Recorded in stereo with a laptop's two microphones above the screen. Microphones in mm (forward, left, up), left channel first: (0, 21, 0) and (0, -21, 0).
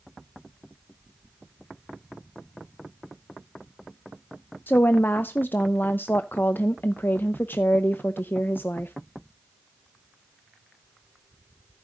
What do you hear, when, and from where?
4.7 s a woman speaking: 55° left (ahead or behind), 0.5 m